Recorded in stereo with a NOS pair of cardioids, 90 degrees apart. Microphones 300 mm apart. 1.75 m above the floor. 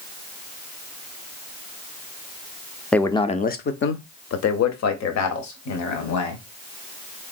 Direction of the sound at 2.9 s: 5° left.